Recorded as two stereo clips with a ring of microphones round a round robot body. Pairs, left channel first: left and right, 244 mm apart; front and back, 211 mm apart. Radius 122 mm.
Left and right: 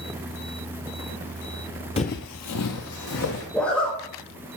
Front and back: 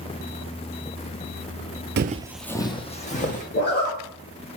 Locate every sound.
2.0 s footsteps: 155° left, 0.5 m; by 3.4 s 55° left, 1.7 m
3.5 s a zipper: 5° left, 1.8 m